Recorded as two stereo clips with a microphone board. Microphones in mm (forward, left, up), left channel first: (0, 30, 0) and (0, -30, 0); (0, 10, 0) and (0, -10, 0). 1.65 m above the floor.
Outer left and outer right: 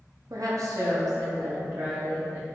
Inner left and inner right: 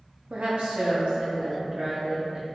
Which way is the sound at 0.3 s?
65° right (ahead or behind).